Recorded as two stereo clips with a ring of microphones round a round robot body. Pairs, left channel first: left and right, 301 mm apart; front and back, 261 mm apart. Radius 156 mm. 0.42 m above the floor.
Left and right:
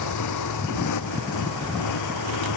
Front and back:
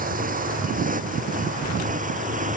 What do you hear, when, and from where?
0.0 s a motorcycle: 120° left